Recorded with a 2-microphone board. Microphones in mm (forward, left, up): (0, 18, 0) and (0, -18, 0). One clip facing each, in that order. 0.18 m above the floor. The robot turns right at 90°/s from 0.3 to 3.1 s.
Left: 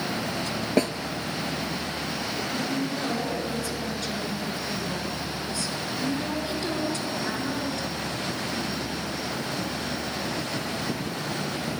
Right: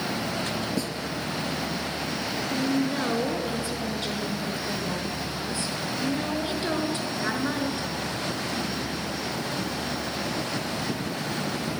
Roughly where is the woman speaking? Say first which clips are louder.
Right 5 dB; right.